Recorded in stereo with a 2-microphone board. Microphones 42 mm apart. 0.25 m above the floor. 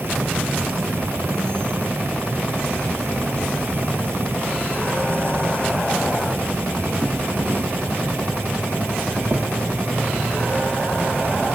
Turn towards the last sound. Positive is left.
turn(degrees=-65)  # may be behind; listen again after turning